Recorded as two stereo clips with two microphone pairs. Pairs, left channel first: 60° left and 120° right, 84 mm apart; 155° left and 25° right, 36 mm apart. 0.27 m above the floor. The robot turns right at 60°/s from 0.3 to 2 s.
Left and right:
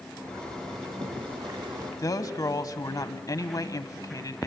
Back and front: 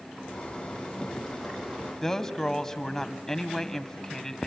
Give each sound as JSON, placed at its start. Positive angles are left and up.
{"t": 0.2, "sound": "a zipper", "azimuth_deg": 180, "distance_m": 6.0}
{"t": 2.0, "sound": "a woman speaking", "azimuth_deg": 80, "distance_m": 1.3}